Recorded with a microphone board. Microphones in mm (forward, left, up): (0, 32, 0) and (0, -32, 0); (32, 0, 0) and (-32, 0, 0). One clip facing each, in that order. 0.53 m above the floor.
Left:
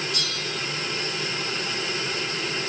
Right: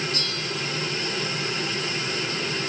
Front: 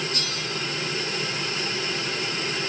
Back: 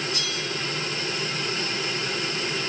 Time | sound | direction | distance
0.1 | a bell | 45° right | 8 m